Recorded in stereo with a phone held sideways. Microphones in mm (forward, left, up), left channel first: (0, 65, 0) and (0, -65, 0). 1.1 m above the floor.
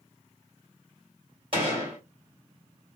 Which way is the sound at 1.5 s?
40° right (ahead or behind).